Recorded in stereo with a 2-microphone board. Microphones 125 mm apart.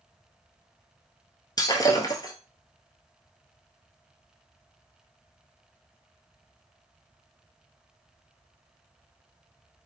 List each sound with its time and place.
1.6 s breaking glass: 30° left (ahead or behind), 0.8 m